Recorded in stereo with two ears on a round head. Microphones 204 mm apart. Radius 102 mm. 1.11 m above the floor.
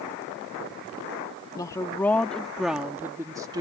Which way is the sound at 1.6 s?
15° left (ahead or behind).